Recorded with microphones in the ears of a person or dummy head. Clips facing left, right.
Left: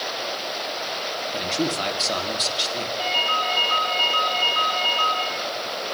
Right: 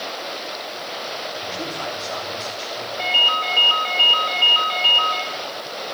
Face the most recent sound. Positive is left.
turn(degrees=-40)  # may be behind; listen again after turning